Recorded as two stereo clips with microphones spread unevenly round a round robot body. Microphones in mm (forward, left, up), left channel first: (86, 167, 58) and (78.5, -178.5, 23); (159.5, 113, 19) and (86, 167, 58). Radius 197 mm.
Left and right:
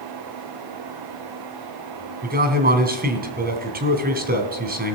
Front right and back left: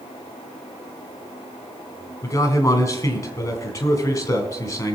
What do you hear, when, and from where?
2.2 s a man speaking: 40° right, 1.6 m